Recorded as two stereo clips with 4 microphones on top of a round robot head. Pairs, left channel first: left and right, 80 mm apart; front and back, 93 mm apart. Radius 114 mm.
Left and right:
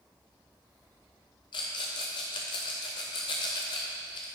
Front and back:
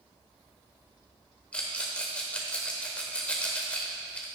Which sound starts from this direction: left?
A rattle, at 1.5 s.